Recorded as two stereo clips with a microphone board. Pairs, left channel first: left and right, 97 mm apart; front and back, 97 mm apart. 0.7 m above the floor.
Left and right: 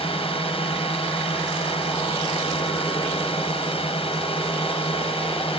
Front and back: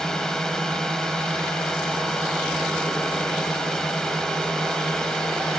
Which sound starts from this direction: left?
A drone, at 0.0 s.